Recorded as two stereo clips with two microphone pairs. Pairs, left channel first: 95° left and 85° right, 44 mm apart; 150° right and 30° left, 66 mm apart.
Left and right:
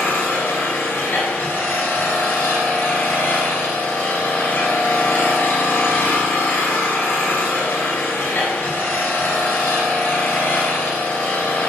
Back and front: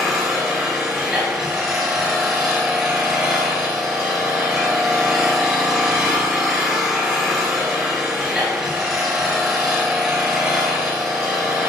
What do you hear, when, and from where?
0.0 s an engine running: 105° left, 2 m